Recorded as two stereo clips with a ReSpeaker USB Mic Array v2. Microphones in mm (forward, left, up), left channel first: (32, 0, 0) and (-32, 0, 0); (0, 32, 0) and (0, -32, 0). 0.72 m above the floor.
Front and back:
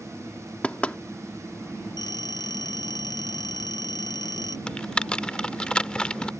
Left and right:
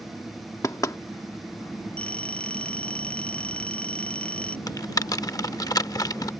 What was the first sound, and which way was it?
Knocking, 70° left.